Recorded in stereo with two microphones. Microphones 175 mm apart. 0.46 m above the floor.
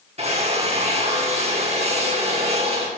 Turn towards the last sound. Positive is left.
turn(degrees=-35)  # may be behind; listen again after turning